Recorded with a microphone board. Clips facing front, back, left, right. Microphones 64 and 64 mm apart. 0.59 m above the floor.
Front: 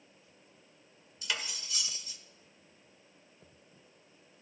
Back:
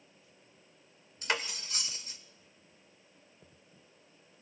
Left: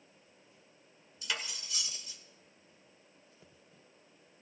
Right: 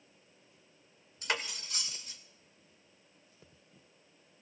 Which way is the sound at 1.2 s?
135° right.